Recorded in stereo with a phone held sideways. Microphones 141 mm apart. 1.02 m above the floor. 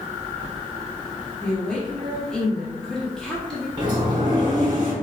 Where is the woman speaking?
5° left (ahead or behind), 0.8 m.